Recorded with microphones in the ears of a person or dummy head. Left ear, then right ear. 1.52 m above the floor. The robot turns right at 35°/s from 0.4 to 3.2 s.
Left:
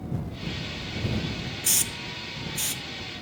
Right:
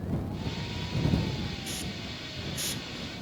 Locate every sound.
1.6 s a hiss: 50° left (ahead or behind); by 2.8 s 10° left (ahead or behind)